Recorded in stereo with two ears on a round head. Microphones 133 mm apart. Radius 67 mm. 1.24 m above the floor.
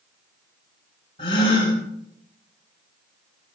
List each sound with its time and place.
1.2 s a gasp: 35° left (ahead or behind), 6 m